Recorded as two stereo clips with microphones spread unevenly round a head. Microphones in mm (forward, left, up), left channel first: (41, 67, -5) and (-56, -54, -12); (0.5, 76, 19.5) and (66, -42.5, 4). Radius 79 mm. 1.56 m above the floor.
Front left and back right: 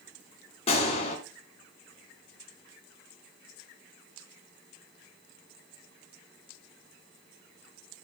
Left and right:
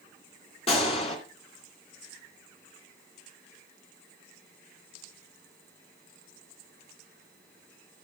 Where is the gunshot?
90° left, 2.5 m.